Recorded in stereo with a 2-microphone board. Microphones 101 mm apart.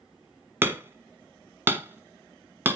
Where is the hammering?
25° right (ahead or behind), 0.9 m.